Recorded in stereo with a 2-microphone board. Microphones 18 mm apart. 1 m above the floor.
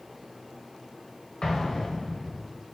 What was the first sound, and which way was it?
An explosion, 45° left (ahead or behind).